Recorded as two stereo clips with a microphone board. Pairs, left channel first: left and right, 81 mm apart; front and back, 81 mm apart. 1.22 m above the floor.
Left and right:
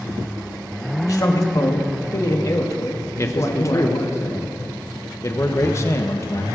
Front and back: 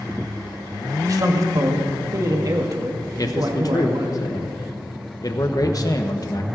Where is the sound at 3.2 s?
40° left, 1.0 m.